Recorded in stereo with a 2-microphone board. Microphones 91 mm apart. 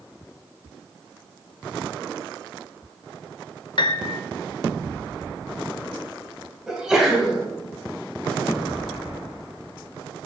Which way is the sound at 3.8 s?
55° left (ahead or behind).